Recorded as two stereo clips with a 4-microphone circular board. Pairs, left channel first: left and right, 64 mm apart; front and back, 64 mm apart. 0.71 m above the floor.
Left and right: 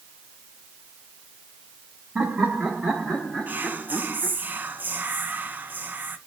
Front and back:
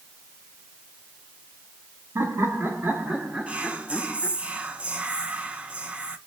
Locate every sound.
2.1 s laughter: 170° right, 1.3 m; by 4.4 s 45° left, 1.2 m
3.5 s whispering: 125° right, 0.7 m